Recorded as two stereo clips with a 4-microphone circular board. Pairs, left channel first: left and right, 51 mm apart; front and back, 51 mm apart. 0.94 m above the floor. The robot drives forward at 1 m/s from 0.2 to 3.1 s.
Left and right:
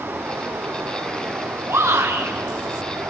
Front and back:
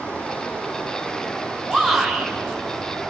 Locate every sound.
0.0 s running water: 60° right, 9 m; by 3.1 s 80° right, 8 m
1.7 s a shout: 85° right, 5 m; by 2.3 s 90° right, 5 m